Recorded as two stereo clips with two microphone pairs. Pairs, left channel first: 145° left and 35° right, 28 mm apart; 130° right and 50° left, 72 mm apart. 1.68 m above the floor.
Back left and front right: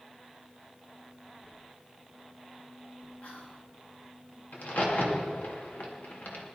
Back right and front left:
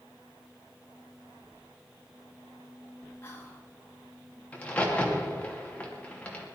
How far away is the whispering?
About 3.5 m.